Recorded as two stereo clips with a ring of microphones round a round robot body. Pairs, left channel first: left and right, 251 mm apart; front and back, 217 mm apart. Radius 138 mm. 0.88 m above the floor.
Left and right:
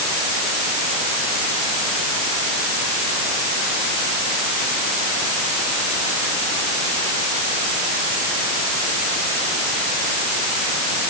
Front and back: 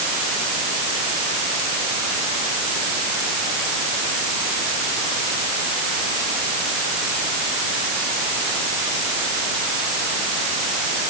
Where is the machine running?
No machine running in this recording.